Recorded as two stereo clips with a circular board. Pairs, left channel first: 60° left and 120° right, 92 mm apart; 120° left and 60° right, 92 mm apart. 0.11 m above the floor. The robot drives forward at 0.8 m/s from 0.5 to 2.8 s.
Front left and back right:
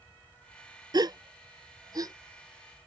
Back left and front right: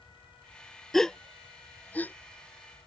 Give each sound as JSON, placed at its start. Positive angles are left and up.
{"t": 0.9, "sound": "a gasp", "azimuth_deg": -155}